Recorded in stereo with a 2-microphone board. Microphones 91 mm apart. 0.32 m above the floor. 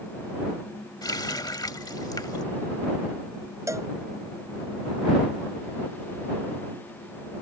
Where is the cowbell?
35° right (ahead or behind).